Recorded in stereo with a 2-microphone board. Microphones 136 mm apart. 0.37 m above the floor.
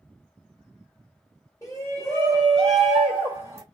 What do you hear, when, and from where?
1.6 s a shout: 25° left (ahead or behind), 1.8 m; by 3.6 s 25° right (ahead or behind), 1.4 m